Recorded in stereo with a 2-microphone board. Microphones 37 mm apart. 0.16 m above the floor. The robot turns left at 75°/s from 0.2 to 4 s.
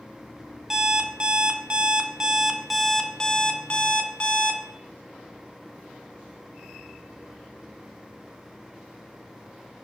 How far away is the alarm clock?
About 0.7 m.